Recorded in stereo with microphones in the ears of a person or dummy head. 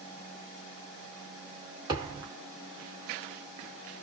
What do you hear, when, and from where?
1.9 s a thud: 20° right (ahead or behind), 1.3 m